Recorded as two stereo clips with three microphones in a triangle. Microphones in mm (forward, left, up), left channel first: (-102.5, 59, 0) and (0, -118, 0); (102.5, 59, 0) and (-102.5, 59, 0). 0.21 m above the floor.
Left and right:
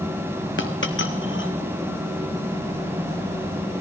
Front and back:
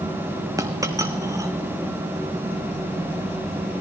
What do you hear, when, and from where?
0.6 s a dropped coin: 105° left, 1.2 m